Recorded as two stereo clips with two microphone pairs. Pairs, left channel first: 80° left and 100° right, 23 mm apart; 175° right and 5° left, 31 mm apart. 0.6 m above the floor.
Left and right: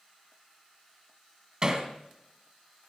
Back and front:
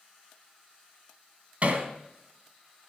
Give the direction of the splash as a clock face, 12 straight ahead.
I don't hear a splash.